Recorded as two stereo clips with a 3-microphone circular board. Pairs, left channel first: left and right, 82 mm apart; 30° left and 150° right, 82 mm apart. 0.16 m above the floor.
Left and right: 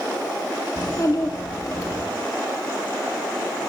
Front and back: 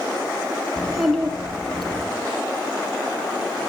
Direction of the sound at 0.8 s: 120° left.